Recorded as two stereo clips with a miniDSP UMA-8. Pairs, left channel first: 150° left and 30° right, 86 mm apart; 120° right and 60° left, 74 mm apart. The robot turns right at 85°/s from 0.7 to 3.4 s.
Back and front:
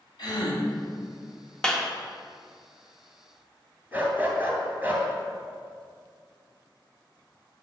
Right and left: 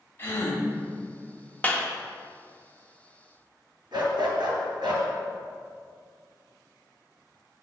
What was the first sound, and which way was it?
A gasp, 175° left.